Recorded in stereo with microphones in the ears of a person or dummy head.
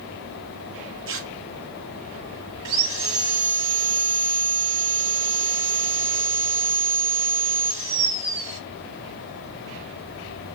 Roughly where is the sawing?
Right.